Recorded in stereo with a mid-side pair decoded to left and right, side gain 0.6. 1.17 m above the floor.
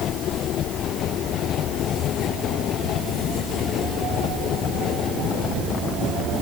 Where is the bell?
No bell in this recording.